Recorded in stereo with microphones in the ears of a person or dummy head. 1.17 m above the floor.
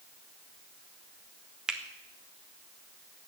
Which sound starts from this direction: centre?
A finger snap, at 1.7 s.